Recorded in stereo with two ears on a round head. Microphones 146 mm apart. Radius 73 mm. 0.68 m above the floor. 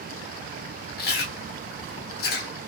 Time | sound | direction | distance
1.0 | chewing | 65° left (ahead or behind) | 0.8 m